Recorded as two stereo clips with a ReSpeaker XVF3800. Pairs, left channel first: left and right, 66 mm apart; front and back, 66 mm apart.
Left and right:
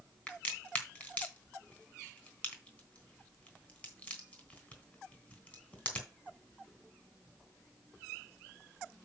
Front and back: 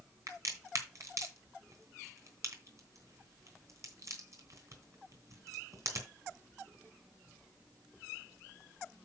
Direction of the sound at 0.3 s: 155° left.